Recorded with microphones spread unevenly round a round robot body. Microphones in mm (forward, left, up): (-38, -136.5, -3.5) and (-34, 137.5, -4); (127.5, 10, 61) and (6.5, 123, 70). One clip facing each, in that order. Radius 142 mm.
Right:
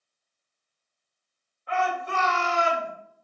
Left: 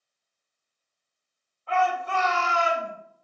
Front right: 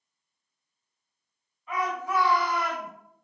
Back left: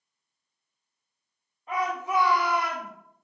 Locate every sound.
1.7 s a shout: 165° right, 1.8 m; by 2.9 s 120° right, 1.7 m